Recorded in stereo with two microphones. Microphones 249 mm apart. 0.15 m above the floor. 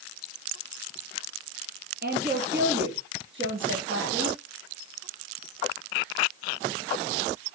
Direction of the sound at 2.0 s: 40° right (ahead or behind).